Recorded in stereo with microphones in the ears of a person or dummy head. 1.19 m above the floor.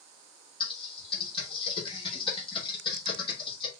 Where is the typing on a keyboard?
25° left (ahead or behind), 1.3 m.